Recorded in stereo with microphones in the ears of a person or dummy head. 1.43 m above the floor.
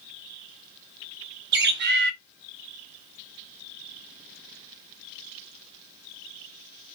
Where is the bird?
60° right (ahead or behind), 0.6 m.